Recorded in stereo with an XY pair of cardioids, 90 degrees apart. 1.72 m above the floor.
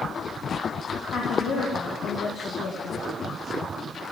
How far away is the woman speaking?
About 2 m.